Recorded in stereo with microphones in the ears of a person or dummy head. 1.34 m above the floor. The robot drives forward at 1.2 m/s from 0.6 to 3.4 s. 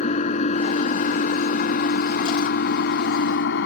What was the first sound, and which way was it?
An engine running, 40° left (ahead or behind).